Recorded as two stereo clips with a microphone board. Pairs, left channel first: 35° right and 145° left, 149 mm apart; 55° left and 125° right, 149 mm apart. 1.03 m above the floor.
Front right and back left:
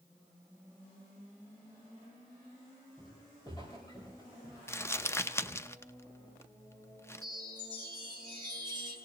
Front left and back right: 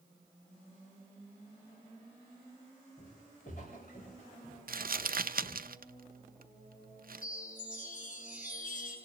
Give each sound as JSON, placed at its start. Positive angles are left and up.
{"t": 3.0, "sound": "footsteps", "azimuth_deg": 30, "distance_m": 8.0}
{"t": 4.7, "sound": "crumpling", "azimuth_deg": -110, "distance_m": 0.5}
{"t": 7.2, "sound": "a chime", "azimuth_deg": 80, "distance_m": 6.5}